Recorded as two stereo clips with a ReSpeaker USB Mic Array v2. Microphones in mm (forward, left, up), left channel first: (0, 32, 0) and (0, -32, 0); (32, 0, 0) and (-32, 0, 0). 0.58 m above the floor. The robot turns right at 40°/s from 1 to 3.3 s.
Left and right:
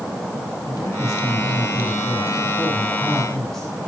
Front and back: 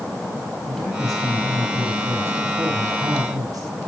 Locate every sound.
0.7 s a man speaking: 85° left, 5.5 m; by 3.7 s 175° left, 5.5 m